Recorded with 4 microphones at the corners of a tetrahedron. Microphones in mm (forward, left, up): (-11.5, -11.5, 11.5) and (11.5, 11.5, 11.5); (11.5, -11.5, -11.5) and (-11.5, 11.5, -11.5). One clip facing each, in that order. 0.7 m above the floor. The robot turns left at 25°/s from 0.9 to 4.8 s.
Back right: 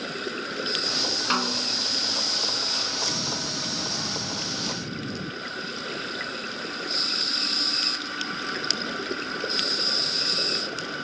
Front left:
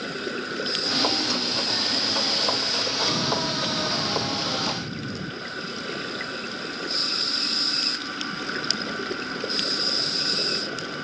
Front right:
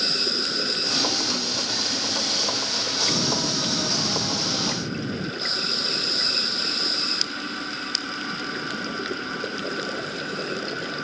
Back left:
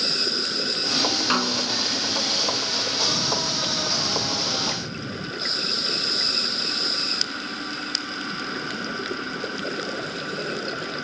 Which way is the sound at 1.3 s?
175° left.